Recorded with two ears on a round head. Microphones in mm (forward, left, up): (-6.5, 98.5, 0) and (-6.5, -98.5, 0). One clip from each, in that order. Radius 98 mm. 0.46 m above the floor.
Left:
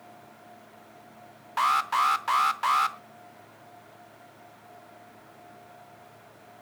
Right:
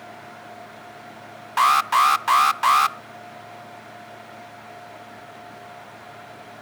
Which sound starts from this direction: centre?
An alarm, at 1.6 s.